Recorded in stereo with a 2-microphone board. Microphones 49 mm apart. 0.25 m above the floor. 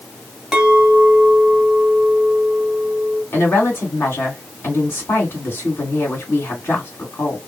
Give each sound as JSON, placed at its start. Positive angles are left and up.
{"t": 0.5, "sound": "a clink", "side_deg": -10, "distance_m": 1.2}
{"t": 3.3, "sound": "a woman speaking", "side_deg": 60, "distance_m": 2.0}